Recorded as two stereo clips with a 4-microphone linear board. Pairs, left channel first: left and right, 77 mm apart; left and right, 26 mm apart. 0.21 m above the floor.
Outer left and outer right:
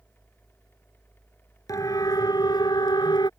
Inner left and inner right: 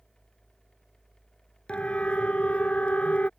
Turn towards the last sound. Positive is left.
turn(degrees=65)  # may be behind; listen again after turning